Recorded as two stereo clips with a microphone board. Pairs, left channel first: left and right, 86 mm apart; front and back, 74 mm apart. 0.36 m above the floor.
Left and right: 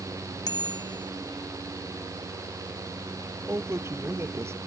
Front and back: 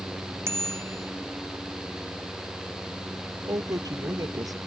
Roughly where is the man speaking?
Behind right.